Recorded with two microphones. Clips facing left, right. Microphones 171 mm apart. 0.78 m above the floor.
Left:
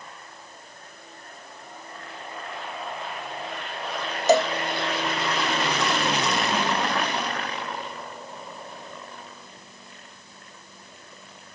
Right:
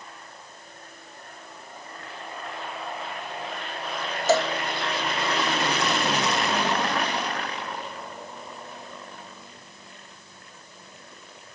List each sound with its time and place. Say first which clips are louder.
4.3 s a cowbell: left 3 dB; 20° left (ahead or behind)